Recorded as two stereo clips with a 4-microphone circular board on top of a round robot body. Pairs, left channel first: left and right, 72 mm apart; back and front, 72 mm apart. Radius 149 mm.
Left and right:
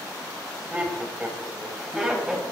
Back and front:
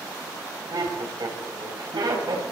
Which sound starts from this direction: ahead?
Laughter, at 0.7 s.